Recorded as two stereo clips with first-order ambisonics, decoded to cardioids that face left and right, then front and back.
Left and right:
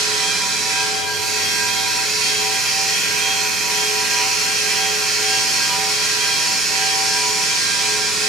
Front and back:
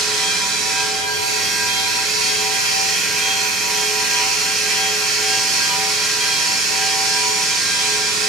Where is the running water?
150° right, 8 m.